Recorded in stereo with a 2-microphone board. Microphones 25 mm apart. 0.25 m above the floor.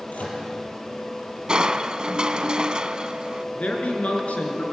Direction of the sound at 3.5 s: 55° left (ahead or behind).